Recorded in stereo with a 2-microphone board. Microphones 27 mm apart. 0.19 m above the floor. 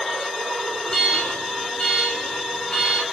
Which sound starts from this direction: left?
An alarm, at 0.9 s.